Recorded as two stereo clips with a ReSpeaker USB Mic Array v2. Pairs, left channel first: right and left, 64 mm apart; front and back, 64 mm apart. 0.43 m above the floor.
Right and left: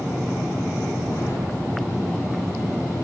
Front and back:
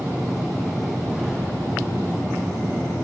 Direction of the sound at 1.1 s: 95° right.